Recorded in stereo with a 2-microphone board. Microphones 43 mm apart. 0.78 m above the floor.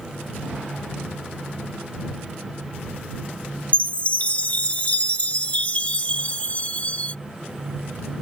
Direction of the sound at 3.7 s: 35° left (ahead or behind).